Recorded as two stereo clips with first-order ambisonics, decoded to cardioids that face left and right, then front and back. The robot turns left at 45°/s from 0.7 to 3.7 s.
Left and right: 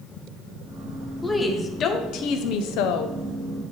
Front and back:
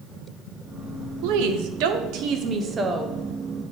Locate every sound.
1.2 s a woman speaking: 175° right, 0.6 m; by 3.2 s 95° left, 0.6 m